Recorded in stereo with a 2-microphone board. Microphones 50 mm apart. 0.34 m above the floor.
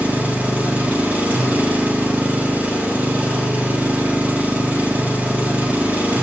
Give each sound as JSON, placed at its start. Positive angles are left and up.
{"t": 0.0, "sound": "an engine running", "side_deg": -35, "distance_m": 0.9}